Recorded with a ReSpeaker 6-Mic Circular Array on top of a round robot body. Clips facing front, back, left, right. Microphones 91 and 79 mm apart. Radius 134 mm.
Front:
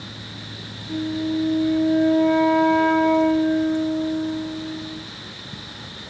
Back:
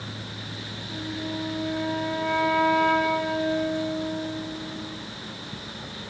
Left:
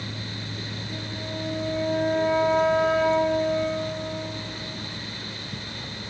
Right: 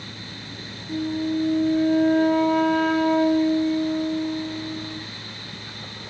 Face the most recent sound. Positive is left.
turn(degrees=-65)